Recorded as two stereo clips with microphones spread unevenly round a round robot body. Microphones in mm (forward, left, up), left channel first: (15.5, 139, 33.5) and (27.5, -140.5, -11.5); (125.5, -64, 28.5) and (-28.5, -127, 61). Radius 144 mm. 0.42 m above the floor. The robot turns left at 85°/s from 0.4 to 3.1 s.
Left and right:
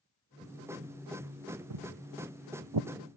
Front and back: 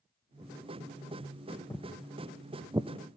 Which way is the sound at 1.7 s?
50° right.